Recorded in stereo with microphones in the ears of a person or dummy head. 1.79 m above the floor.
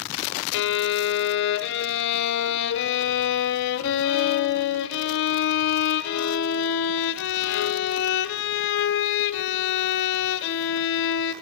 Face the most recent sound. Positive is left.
turn(degrees=65)  # may be behind; listen again after turning